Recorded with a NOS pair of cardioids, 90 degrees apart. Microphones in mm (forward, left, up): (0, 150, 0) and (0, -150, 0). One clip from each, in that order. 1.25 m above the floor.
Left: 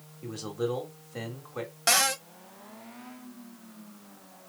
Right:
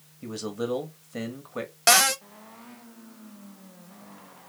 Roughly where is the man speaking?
Ahead.